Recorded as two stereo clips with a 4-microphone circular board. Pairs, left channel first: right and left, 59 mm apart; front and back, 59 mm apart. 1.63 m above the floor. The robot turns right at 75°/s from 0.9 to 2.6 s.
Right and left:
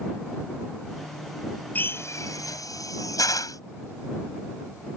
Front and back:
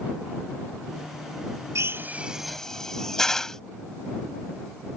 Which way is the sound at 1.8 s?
145° right.